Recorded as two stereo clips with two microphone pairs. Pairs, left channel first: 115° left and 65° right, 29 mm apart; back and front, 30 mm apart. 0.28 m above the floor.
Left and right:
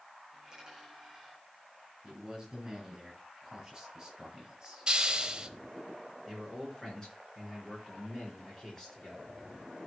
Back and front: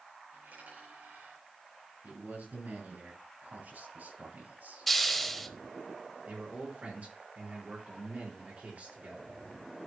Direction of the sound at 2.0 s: Straight ahead.